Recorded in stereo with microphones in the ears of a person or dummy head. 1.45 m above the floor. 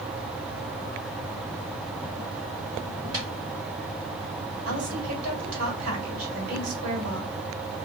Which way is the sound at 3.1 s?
30° right (ahead or behind).